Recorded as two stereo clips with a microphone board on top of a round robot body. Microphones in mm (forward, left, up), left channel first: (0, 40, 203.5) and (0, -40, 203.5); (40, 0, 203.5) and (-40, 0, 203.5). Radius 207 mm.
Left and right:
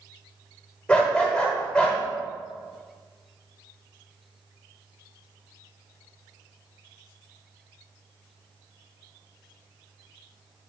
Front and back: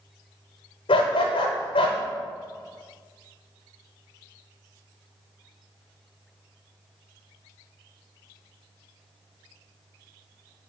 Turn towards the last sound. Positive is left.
turn(degrees=10)